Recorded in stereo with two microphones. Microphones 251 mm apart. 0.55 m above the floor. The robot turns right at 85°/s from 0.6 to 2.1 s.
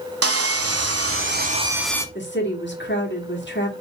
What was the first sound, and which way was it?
Sawing, 110° right.